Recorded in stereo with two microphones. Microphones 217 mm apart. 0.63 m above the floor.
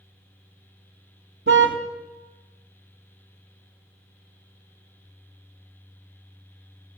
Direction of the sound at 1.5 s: 65° right (ahead or behind).